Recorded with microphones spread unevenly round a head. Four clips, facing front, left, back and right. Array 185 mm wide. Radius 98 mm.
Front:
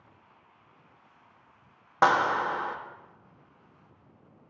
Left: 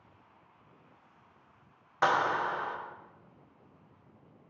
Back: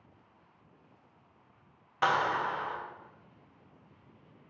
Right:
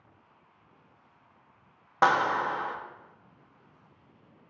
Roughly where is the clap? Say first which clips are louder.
Right 3 dB, front 5 dB; ahead right.